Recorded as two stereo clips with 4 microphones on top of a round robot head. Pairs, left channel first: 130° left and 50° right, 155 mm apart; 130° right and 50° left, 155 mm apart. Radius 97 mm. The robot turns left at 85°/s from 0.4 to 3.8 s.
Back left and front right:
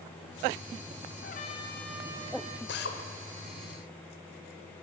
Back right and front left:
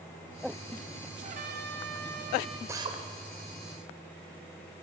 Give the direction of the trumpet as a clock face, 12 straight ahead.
9 o'clock.